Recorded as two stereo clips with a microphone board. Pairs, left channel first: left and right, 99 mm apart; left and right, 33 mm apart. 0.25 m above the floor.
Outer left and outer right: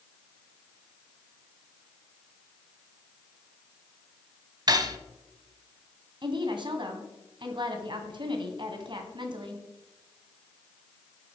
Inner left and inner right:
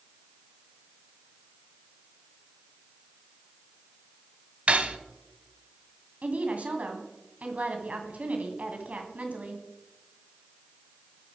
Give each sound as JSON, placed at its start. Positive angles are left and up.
{"t": 4.7, "sound": "cutlery clinking", "side_deg": -40, "distance_m": 1.0}
{"t": 6.2, "sound": "a woman speaking", "side_deg": -50, "distance_m": 2.0}